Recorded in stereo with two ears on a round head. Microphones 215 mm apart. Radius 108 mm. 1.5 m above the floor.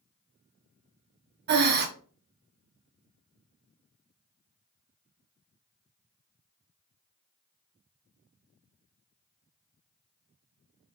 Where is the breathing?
45° right (ahead or behind), 0.7 m.